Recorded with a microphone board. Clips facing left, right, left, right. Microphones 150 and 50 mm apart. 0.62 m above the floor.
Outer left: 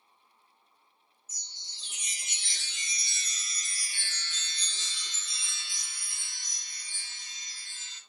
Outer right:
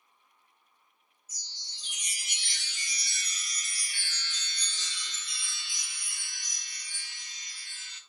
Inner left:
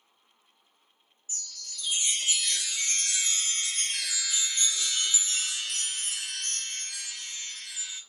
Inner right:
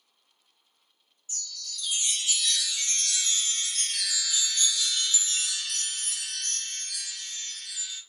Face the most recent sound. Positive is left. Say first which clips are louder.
# outer right 1 dB, inner right 2 dB
turn(degrees=25)  # may be behind; listen again after turning